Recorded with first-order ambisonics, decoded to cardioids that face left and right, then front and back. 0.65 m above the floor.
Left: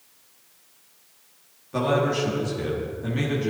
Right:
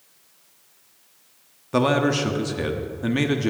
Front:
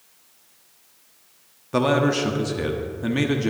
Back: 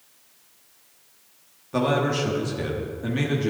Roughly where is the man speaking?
Ahead right.